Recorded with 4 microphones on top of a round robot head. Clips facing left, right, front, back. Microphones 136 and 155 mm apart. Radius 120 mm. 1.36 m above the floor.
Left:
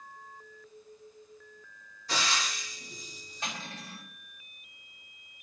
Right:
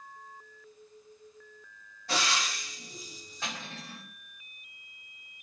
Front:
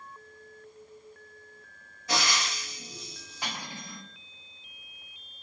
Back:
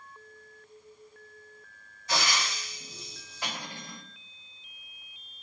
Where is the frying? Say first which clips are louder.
Right 1 dB, front 1 dB; 35° right, 1.0 m.